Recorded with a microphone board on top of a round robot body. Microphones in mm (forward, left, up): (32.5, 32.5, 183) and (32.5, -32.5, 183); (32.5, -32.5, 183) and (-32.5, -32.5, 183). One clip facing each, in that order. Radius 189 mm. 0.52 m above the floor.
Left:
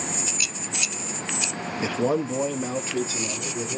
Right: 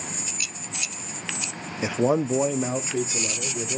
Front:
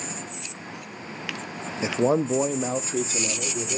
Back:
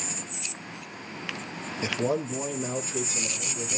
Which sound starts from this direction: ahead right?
A man speaking, at 1.8 s.